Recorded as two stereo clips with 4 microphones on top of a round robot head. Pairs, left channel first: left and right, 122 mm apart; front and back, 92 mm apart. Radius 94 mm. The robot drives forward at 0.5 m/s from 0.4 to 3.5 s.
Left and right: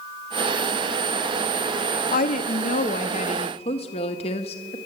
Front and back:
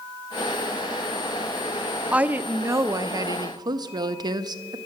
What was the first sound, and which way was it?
A woman speaking, 105° left.